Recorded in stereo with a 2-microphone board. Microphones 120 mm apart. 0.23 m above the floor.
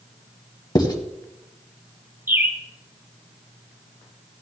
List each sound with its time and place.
0.8 s writing: 35° left (ahead or behind), 1.4 m
2.3 s a bird: 15° right (ahead or behind), 1.3 m